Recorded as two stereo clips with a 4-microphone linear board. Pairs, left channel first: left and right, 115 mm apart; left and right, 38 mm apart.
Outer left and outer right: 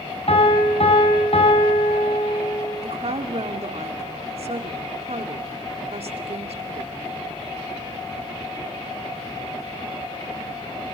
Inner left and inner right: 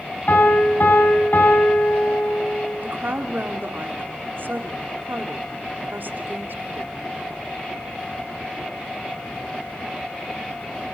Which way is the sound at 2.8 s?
60° right (ahead or behind).